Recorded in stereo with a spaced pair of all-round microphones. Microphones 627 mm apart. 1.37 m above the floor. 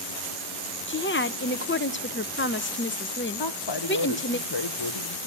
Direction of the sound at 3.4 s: 40° left (ahead or behind).